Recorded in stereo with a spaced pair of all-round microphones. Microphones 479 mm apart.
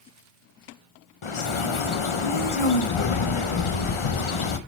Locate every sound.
1.2 s a bird: 80° left, 0.7 m